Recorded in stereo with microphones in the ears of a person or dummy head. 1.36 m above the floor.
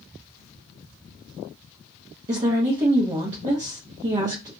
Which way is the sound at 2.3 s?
25° right (ahead or behind).